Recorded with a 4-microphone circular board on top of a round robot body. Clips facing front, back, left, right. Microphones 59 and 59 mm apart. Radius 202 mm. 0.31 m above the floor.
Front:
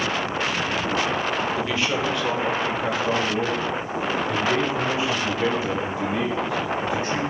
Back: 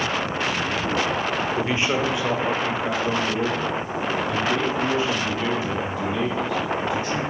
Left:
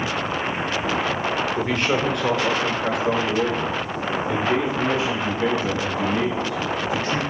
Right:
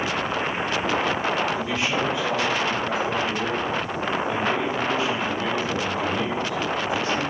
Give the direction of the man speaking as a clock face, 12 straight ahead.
8 o'clock.